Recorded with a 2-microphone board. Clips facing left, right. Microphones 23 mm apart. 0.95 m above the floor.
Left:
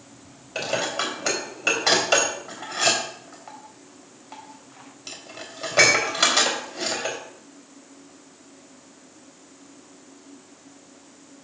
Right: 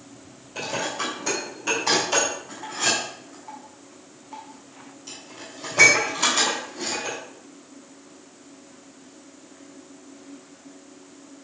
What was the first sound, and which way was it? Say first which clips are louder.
Dishes clattering: left 2 dB; 45° left (ahead or behind).